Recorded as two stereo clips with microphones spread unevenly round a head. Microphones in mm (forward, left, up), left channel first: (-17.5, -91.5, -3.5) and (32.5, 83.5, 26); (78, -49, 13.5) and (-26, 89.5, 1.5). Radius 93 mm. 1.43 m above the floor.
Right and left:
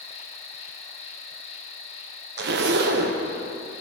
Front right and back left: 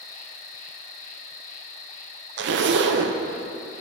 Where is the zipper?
105° left, 0.5 m.